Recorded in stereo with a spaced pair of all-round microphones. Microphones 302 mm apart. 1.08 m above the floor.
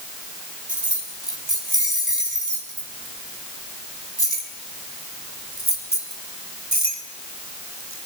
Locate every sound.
0.7 s keys jangling: 90° right, 6.5 m; by 8.1 s 60° right (ahead or behind), 4 m